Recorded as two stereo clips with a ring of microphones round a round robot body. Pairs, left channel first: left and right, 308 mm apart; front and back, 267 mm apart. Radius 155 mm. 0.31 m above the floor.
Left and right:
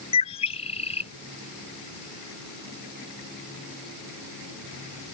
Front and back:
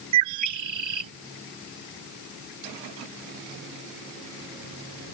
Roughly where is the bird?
Behind.